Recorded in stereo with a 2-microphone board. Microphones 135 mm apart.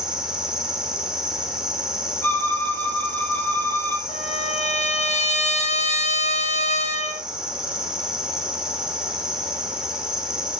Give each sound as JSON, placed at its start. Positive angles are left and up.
{"t": 0.0, "sound": "an insect", "side_deg": -5, "distance_m": 6.0}
{"t": 2.2, "sound": "a violin", "side_deg": 15, "distance_m": 3.5}
{"t": 4.1, "sound": "a trumpet", "side_deg": 60, "distance_m": 4.0}